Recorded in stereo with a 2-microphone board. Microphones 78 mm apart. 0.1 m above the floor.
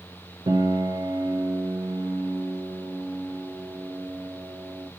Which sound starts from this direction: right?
A piano, at 0.5 s.